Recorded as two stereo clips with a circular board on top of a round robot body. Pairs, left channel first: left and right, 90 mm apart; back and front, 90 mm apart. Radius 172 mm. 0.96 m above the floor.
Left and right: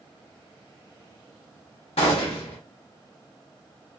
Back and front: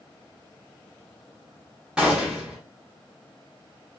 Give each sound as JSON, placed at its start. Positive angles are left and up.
{"t": 2.0, "sound": "a gunshot", "azimuth_deg": 80, "distance_m": 0.5}